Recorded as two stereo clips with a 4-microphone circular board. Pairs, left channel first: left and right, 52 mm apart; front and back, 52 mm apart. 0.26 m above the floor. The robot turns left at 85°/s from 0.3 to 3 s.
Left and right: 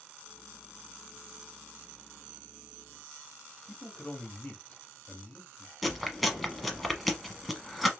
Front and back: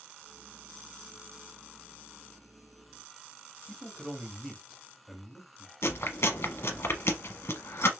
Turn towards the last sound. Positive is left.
turn(degrees=0)